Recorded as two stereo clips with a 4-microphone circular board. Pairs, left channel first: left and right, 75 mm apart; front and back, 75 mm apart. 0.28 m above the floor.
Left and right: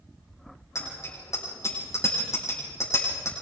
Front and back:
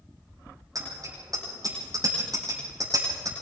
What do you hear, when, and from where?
0.8 s a bicycle bell: 140° left, 8.5 m